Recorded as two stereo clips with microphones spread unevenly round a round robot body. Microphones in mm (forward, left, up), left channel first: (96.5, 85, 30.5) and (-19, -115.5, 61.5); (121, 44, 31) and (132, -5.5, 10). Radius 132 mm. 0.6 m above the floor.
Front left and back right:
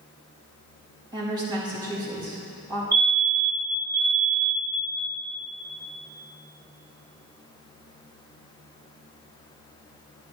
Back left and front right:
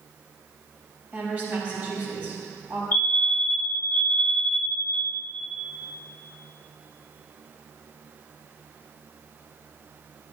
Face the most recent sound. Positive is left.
turn(degrees=120)